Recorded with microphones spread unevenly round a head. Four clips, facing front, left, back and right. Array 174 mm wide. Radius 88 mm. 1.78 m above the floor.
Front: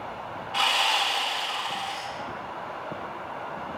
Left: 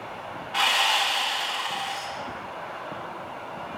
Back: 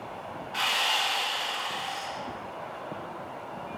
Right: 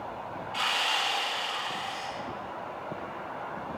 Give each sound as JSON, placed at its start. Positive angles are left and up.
{"t": 0.5, "sound": "sawing", "azimuth_deg": 60, "distance_m": 5.5}